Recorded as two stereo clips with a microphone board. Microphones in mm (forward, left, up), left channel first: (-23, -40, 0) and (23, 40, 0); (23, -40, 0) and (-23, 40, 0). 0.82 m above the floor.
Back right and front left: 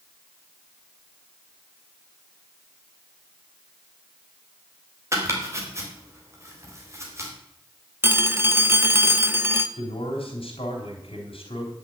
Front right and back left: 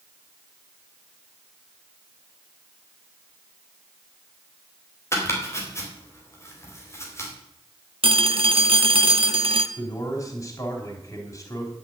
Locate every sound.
5.1 s chopping: straight ahead, 3.5 m
8.0 s a phone ringing: 125° left, 0.8 m
9.8 s a man speaking: 115° right, 3.5 m